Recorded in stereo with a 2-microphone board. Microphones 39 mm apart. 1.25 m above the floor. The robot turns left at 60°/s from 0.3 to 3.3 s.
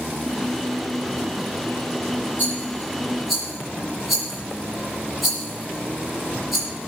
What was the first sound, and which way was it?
A rattle, 55° left (ahead or behind).